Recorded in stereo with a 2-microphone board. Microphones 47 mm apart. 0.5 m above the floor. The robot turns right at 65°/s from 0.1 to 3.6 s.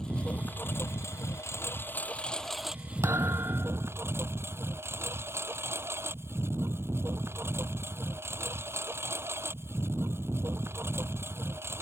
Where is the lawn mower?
20° left; by 11.8 s 115° right.